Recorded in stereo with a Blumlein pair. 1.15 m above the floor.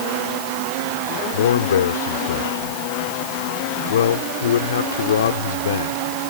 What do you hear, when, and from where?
1.3 s a man speaking: 60° left